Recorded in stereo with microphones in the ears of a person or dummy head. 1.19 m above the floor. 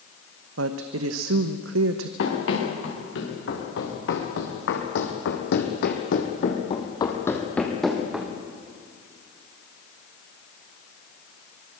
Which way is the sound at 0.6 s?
75° right (ahead or behind).